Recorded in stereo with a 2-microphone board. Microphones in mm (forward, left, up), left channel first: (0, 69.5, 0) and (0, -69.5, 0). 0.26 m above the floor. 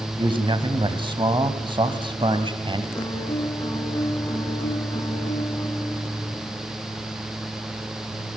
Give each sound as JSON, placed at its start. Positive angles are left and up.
{"t": 0.2, "sound": "a man speaking", "side_deg": -35, "distance_m": 1.5}
{"t": 2.9, "sound": "a piano", "side_deg": 25, "distance_m": 3.0}